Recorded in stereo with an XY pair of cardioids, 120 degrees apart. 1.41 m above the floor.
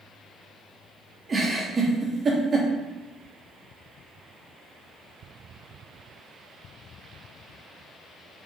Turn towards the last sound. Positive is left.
turn(degrees=-30)